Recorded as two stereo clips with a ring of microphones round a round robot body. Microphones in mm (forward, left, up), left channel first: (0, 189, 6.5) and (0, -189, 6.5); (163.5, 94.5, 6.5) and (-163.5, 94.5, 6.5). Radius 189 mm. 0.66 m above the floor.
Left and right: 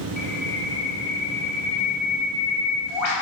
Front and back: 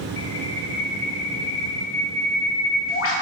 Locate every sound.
0.2 s a bird: 50° left, 1.5 m